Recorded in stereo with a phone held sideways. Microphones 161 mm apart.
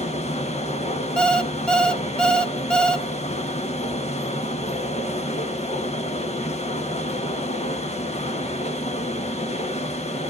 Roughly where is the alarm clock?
Centre.